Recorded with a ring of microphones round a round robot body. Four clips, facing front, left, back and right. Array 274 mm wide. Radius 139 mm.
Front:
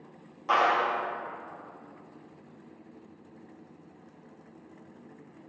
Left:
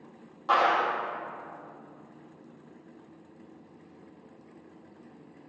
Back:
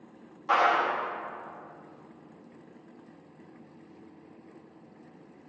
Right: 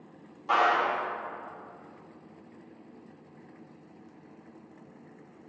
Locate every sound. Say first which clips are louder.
0.5 s a clap: left 1 dB, even; 55° left, 1.1 m